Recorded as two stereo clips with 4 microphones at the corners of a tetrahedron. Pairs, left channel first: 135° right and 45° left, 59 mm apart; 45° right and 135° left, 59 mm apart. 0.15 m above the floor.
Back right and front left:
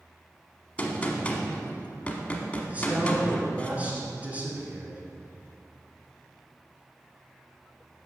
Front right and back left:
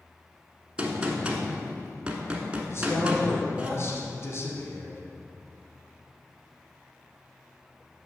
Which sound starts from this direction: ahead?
A man speaking, at 2.7 s.